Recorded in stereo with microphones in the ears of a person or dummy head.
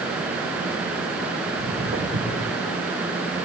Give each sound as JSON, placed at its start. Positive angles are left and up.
{"t": 1.5, "sound": "footsteps", "side_deg": -50, "distance_m": 6.0}